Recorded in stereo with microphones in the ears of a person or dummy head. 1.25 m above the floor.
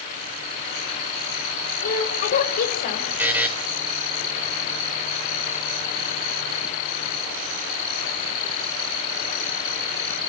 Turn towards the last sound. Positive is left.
turn(degrees=-15)  # may be behind; listen again after turning